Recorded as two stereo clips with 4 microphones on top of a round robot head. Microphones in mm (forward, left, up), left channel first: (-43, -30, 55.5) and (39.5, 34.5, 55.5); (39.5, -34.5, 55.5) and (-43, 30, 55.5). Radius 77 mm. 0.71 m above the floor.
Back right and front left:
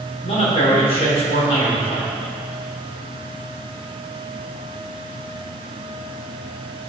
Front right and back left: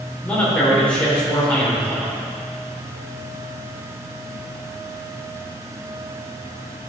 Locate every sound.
0.2 s a man speaking: 115° right, 2.5 m